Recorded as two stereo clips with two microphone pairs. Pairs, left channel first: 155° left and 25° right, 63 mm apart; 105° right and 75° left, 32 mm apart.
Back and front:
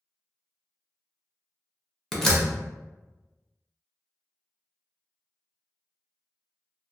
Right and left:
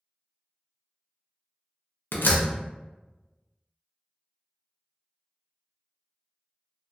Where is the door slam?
115° right, 0.6 m.